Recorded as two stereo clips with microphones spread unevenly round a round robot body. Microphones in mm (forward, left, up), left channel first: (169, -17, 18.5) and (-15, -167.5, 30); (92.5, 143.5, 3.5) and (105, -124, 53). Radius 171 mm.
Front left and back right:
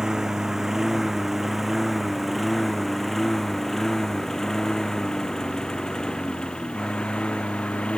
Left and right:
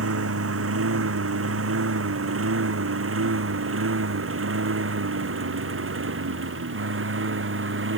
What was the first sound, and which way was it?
A lawn mower, 55° right.